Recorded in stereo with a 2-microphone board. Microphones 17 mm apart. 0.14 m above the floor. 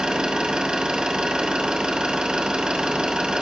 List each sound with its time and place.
0.0 s an engine running: 65° right (ahead or behind), 2.5 m